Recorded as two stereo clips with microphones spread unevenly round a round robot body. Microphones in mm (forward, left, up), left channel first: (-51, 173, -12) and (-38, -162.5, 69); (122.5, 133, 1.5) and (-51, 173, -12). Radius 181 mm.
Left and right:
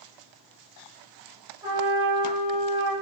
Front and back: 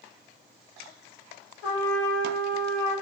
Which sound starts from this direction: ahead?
A trumpet, at 1.6 s.